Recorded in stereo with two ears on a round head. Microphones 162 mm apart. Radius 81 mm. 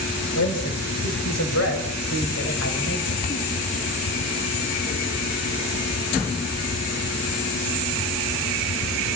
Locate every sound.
0.3 s a man speaking: 80° left, 5.5 m; by 3.2 s 60° left (ahead or behind), 6 m